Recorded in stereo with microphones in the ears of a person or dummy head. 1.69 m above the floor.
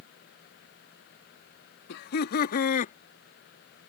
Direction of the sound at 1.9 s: 55° left (ahead or behind).